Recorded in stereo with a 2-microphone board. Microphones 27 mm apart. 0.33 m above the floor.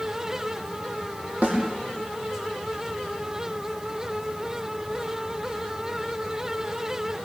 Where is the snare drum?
85° right, 6 m.